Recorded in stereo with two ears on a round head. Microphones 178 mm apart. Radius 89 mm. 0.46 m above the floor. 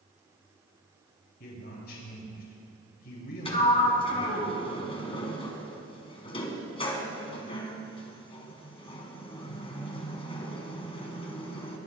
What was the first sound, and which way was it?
A man speaking, 50° left (ahead or behind).